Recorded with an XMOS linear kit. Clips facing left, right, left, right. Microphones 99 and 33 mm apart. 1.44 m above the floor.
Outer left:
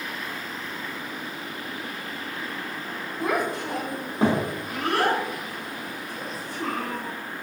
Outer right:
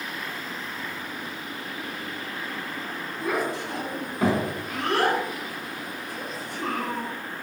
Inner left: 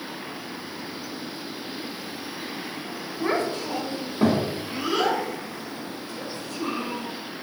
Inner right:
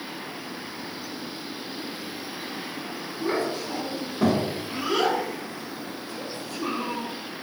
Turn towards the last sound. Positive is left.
turn(degrees=-30)  # may be behind; listen again after turning